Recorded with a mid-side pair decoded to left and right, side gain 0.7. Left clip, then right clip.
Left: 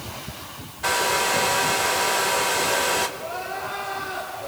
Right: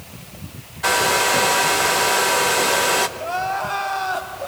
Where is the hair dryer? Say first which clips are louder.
Right 4 dB; 20° right, 1.2 m.